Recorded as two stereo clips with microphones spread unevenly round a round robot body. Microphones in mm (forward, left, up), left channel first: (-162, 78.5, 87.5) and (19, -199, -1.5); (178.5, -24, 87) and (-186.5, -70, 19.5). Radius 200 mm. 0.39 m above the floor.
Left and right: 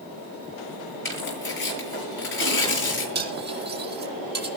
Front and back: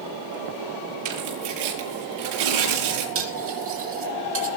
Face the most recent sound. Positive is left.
turn(degrees=-115)